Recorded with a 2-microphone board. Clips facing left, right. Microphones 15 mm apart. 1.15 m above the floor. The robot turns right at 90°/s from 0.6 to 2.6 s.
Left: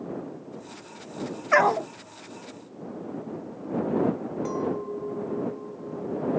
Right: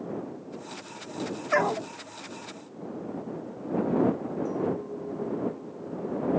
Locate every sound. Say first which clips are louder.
1.5 s a dog barking: left 5 dB; 20° left; by 1.9 s 55° left
4.5 s a clink: left 2 dB; 40° left (ahead or behind)